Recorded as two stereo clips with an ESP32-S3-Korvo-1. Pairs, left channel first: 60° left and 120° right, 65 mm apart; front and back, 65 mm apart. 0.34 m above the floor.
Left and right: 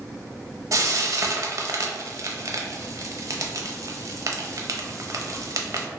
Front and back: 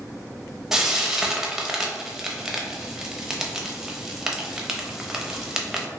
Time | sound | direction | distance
0.7 | frying | 100° right | 0.5 m